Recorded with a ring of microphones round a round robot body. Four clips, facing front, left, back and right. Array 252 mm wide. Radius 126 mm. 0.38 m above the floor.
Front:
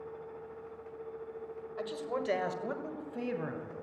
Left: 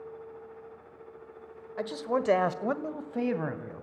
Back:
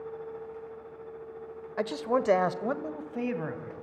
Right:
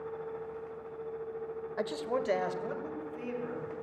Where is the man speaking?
175° right, 1.4 m; by 3.8 s 100° left, 3 m.